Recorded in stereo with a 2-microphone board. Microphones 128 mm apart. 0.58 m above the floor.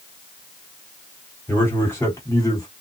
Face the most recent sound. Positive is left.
turn(degrees=30)  # may be behind; listen again after turning